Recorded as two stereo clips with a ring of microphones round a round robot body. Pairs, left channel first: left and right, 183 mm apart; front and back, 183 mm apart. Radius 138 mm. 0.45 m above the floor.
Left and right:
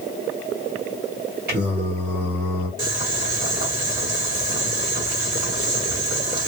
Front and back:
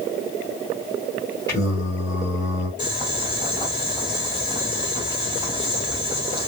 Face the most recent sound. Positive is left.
turn(degrees=-65)